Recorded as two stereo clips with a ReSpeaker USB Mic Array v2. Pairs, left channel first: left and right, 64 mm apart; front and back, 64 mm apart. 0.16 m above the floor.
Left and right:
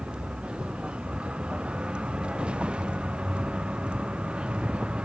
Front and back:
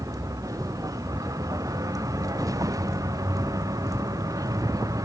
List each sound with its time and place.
0.0 s a vehicle: 160° right